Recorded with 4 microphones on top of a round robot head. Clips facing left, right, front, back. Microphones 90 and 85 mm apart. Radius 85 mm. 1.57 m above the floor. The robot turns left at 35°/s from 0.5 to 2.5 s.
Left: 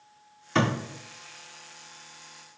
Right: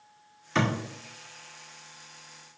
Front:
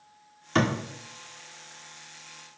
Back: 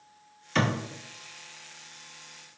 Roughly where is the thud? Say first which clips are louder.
Left 2 dB, front 2 dB; ahead left.